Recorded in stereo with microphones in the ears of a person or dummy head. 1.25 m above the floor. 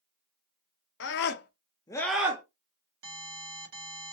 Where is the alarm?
70° right (ahead or behind), 1.9 m.